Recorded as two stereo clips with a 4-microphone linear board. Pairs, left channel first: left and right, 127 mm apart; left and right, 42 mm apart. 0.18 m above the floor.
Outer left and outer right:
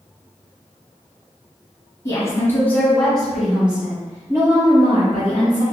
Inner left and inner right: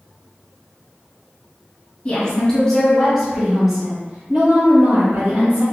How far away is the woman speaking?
About 1.8 m.